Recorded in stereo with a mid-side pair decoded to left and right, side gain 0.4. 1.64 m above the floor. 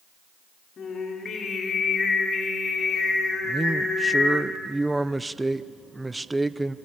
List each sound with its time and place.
0.8 s singing: 55° left, 6 m
3.4 s a man speaking: 15° right, 0.9 m